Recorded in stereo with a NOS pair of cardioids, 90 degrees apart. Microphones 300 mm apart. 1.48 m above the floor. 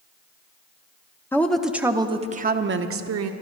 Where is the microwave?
No microwave in this recording.